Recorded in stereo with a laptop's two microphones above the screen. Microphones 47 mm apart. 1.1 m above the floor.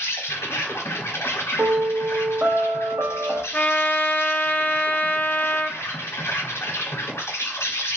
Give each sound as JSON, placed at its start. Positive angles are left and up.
{"t": 0.0, "sound": "an insect", "side_deg": 70, "distance_m": 0.8}
{"t": 1.6, "sound": "a piano", "side_deg": -45, "distance_m": 0.6}
{"t": 3.5, "sound": "a trumpet", "side_deg": 35, "distance_m": 0.5}